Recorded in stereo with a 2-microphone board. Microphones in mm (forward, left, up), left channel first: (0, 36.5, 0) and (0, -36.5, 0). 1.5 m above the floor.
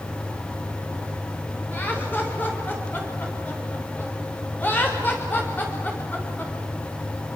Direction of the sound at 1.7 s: 25° left (ahead or behind).